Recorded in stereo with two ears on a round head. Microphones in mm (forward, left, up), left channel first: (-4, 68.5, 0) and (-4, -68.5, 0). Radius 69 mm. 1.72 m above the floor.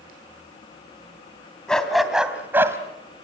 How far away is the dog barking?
About 3 m.